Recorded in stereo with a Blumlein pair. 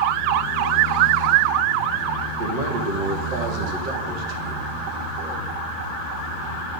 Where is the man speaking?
40° right, 1.9 m.